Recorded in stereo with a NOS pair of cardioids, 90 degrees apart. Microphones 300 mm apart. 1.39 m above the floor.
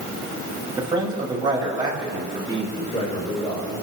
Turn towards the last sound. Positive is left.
turn(degrees=15)